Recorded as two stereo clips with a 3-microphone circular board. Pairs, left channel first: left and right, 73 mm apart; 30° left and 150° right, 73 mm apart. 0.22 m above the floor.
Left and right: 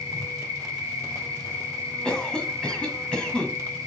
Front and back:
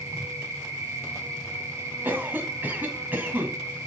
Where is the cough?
160° left, 1.4 m.